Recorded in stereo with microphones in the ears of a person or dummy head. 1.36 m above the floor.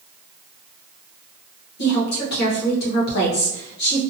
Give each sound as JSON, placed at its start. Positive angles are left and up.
{"t": 1.8, "sound": "a woman speaking", "side_deg": 55, "distance_m": 1.1}